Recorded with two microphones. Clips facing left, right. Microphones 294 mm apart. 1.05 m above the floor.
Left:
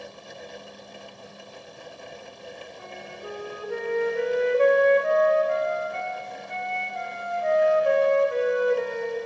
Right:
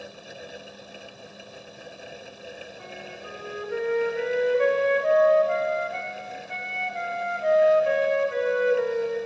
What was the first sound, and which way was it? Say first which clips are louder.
A flute: left 1 dB; 55° left (ahead or behind).